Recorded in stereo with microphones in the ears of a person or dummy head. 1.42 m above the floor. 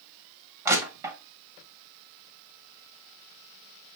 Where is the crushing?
20° right (ahead or behind), 0.9 m.